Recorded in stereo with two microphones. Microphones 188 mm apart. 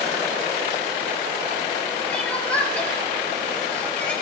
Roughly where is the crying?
Centre.